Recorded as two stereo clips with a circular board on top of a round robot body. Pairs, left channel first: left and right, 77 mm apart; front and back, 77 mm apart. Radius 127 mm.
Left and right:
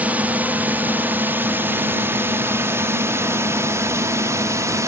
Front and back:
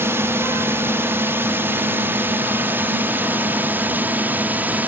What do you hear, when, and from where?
0.0 s a drone: 150° right; by 4.9 s 120° right